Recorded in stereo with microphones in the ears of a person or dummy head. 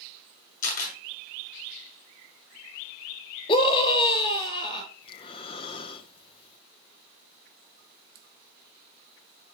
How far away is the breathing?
About 0.9 m.